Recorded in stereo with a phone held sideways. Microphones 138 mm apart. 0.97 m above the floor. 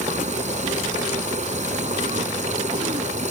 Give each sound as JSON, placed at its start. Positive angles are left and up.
{"t": 0.0, "sound": "a machine running", "side_deg": -60}